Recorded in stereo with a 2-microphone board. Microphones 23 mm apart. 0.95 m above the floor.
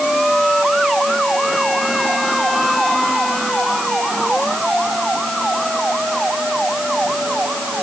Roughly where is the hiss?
I don't hear a hiss.